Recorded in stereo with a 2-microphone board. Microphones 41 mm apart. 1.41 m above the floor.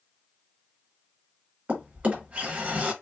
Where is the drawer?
35° right (ahead or behind), 1.1 m.